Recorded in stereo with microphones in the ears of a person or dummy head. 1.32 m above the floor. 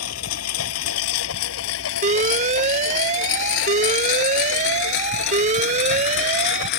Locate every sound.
0.0 s a lawn mower: 80° left; by 6.8 s 60° left (ahead or behind)
2.0 s an alarm: 30° right (ahead or behind)